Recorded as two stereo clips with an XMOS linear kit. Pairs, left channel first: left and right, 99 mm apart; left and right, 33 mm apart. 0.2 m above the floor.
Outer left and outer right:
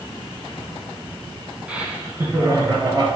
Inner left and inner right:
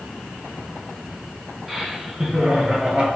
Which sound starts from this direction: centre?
Laughter, at 1.7 s.